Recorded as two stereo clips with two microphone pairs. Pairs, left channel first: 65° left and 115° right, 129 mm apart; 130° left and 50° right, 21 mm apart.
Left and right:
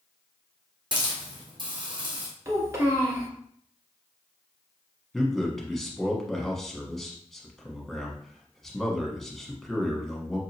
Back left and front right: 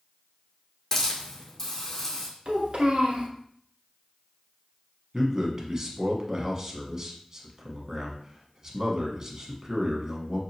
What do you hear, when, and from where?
0.9 s a hiss: 165° right, 1.8 m
2.5 s a child speaking: 50° right, 1.6 m
5.1 s a man speaking: 20° right, 1.1 m